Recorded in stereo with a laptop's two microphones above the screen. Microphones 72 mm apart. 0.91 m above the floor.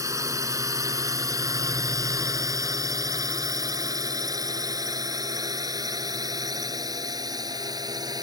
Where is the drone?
50° right (ahead or behind); by 8.2 s 65° right (ahead or behind).